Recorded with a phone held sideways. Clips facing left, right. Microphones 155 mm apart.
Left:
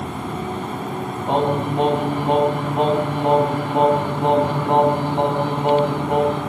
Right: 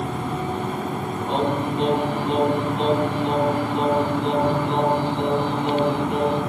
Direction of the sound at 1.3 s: 55° left (ahead or behind).